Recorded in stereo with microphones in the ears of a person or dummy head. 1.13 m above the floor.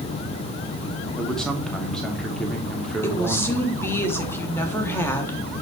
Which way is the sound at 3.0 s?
10° left (ahead or behind).